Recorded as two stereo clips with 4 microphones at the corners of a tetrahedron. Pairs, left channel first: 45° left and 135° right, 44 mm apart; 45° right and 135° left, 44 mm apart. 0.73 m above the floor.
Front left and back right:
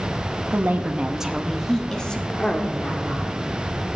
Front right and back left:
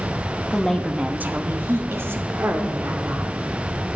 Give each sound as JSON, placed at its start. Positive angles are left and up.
{"t": 0.5, "sound": "a woman speaking", "azimuth_deg": -120, "distance_m": 0.9}